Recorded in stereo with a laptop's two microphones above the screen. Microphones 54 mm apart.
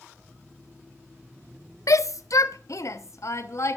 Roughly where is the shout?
Left.